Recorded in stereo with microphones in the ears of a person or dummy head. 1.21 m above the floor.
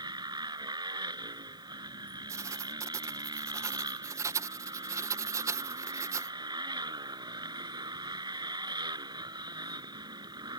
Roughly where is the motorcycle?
Right.